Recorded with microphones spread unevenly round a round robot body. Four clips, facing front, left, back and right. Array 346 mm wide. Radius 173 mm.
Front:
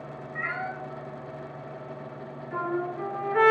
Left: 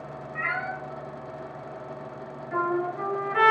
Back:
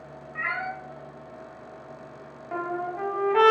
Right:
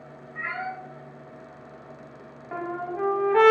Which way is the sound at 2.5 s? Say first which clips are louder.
Left 4 dB, even; 150° right.